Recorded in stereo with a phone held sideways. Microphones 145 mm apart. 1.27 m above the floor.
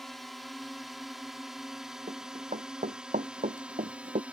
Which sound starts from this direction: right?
Running footsteps, at 2.1 s.